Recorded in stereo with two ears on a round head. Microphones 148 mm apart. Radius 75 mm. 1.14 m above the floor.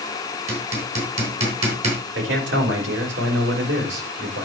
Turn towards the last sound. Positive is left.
turn(degrees=-80)